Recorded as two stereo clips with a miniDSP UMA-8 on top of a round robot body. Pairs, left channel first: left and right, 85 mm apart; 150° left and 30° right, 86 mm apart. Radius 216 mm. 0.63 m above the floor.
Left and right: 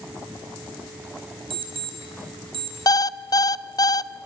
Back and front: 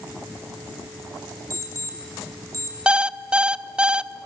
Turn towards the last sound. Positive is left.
turn(degrees=50)